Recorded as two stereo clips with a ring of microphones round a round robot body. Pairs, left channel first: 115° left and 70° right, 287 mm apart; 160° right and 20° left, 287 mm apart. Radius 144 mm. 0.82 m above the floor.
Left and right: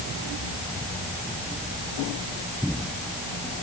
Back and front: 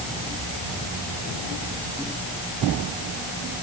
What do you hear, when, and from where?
Only background noise.